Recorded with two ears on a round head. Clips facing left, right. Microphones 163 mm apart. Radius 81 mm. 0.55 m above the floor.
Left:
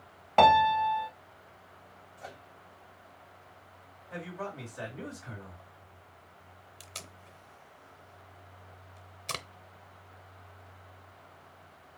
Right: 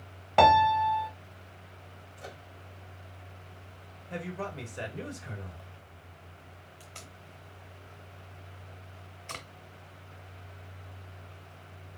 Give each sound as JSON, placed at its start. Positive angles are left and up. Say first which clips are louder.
{"t": 0.4, "sound": "a piano", "louder": "right 1 dB", "side_deg": -5, "distance_m": 0.5}
{"t": 2.2, "sound": "a microwave", "louder": "right 1 dB", "side_deg": -40, "distance_m": 1.9}
{"t": 4.1, "sound": "a man speaking", "louder": "right 2 dB", "side_deg": -35, "distance_m": 2.0}
{"t": 6.8, "sound": "tape being pulled", "louder": "left 2 dB", "side_deg": 45, "distance_m": 0.7}